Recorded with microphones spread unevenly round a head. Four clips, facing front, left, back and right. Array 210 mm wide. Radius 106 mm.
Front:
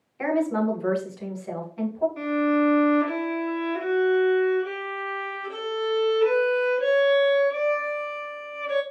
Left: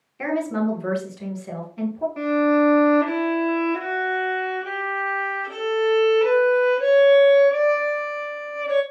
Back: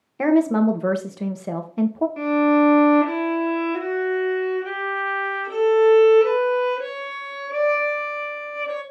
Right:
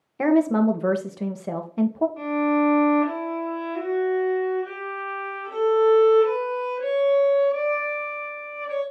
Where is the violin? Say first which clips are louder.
Left 6 dB, back 6 dB; 120° left, 3.5 m.